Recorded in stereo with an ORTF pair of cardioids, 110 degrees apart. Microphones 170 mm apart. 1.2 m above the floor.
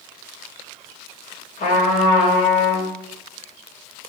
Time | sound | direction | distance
1.6 | a trumpet | 55° left | 1.5 m